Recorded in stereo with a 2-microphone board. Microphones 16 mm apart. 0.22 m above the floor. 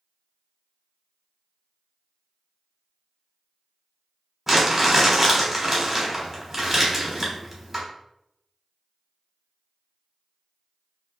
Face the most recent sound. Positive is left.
turn(degrees=-5)  # may be behind; listen again after turning